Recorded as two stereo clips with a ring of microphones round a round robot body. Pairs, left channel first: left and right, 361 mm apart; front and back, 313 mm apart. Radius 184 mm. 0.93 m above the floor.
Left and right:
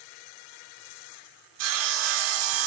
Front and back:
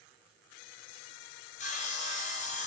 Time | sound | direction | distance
1.6 | sawing | 70° right | 0.5 m